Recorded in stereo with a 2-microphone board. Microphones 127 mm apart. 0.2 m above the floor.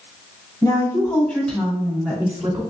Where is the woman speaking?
30° left (ahead or behind), 1.3 m; by 2.6 s 20° right (ahead or behind), 1.3 m.